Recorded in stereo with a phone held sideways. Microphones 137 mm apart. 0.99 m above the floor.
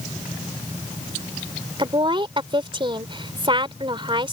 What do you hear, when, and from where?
1.8 s a woman speaking: 40° right (ahead or behind)